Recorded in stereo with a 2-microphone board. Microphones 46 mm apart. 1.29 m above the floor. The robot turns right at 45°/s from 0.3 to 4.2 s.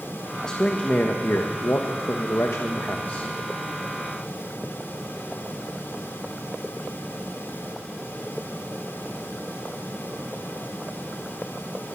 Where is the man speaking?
15° left, 1.2 m; by 3.3 s 145° left, 1.2 m.